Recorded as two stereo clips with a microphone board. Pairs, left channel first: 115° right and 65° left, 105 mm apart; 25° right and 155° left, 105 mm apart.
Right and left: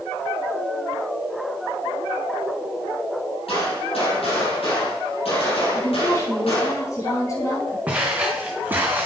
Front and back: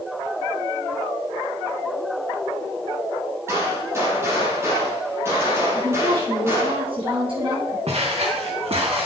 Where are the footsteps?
145° left, 3 m; by 9.1 s 135° left, 2.0 m.